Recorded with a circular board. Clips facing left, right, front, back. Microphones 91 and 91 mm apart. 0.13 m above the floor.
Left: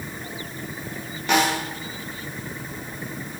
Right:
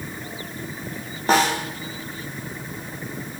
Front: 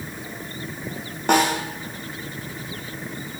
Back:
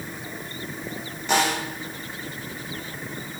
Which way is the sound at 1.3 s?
35° right.